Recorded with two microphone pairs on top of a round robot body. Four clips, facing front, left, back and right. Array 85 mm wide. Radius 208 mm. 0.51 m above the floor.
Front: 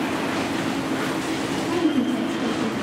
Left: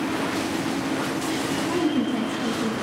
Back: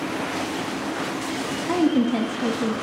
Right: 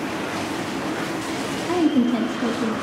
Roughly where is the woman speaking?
Behind right.